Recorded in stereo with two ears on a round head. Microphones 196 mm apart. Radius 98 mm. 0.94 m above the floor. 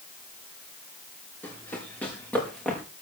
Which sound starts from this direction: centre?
Running footsteps, at 1.4 s.